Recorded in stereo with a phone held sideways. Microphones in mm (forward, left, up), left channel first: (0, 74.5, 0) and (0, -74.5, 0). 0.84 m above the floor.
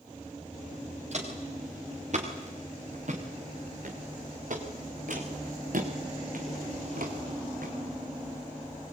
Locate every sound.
1.1 s footsteps: 55° right (ahead or behind), 6 m; by 7.7 s 75° right (ahead or behind), 3 m